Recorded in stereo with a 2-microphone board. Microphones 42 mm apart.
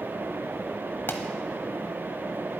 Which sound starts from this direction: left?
A pop, at 1.1 s.